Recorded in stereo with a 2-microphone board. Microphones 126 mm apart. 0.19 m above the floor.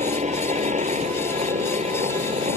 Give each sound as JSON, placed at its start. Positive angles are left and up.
{"t": 0.0, "sound": "a helicopter", "side_deg": -70}